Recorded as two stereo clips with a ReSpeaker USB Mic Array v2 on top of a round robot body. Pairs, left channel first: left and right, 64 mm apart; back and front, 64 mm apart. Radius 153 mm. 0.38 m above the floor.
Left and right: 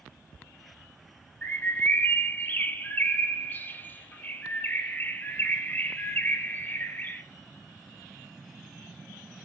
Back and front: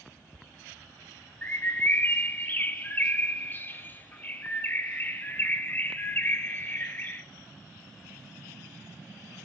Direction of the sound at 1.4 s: 135° left.